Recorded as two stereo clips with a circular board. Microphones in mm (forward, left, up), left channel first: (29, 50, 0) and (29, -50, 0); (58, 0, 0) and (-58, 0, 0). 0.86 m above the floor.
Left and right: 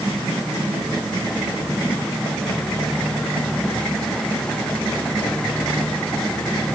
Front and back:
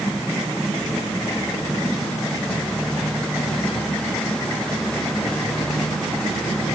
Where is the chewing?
No chewing in this recording.